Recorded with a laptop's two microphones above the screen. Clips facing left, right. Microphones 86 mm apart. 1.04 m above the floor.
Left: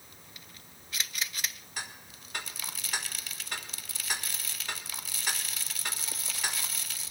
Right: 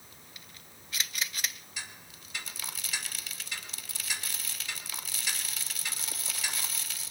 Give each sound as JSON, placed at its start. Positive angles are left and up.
{"t": 1.8, "sound": "ticking", "side_deg": 55, "distance_m": 1.6}